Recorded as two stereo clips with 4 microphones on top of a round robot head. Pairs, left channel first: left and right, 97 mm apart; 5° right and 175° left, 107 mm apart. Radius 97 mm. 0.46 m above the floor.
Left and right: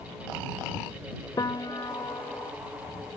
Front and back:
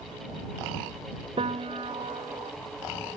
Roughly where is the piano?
Behind left.